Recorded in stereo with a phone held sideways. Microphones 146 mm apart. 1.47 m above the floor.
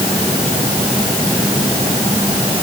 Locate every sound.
Only background noise.